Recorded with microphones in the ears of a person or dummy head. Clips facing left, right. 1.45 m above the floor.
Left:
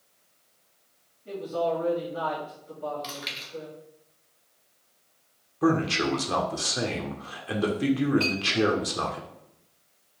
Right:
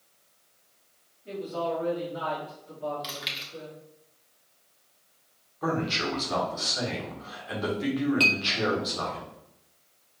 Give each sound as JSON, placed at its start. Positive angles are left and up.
{"t": 1.2, "sound": "a man speaking", "side_deg": 0, "distance_m": 1.4}
{"t": 3.0, "sound": "chewing", "side_deg": -5, "distance_m": 1.0}
{"t": 5.6, "sound": "a man speaking", "side_deg": 40, "distance_m": 0.8}
{"t": 8.2, "sound": "a clink", "side_deg": -40, "distance_m": 0.7}